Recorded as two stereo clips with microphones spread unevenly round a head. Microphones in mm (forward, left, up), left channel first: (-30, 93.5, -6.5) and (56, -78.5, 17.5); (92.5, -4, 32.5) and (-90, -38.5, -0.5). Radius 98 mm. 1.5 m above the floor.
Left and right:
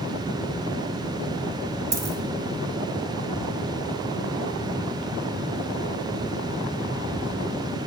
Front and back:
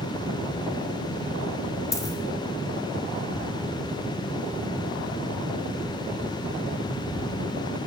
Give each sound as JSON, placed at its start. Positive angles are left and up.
{"t": 1.9, "sound": "a dropped coin", "azimuth_deg": -20, "distance_m": 0.9}